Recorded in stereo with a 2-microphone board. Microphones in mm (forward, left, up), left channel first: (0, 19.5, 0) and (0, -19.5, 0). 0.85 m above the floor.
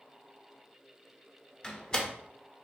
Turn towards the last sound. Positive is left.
turn(degrees=20)  # may be behind; listen again after turning